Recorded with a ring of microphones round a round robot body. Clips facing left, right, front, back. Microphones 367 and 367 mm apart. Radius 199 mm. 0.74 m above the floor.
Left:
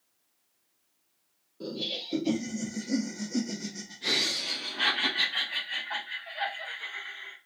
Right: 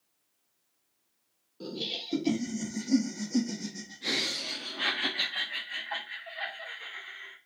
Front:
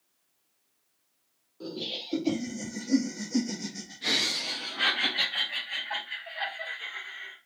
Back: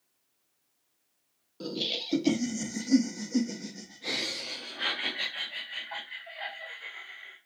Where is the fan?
No fan in this recording.